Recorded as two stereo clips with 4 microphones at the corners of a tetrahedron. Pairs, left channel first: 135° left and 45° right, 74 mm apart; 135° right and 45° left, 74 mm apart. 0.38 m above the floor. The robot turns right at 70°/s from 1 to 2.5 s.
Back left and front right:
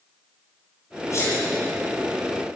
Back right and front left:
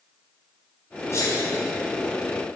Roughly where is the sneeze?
Behind.